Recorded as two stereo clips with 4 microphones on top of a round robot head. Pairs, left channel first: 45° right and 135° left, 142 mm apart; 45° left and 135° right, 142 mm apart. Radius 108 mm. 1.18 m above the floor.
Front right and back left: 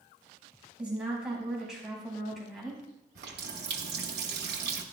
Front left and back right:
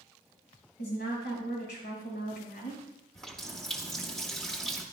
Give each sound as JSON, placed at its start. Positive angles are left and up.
{"t": 0.8, "sound": "a woman speaking", "azimuth_deg": 55, "distance_m": 5.0}
{"t": 3.1, "sound": "a running tap", "azimuth_deg": 130, "distance_m": 1.1}